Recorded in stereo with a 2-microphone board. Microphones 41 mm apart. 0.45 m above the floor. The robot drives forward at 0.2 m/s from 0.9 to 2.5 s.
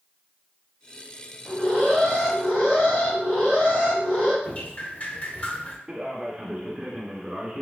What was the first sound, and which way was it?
An alarm, 45° left (ahead or behind).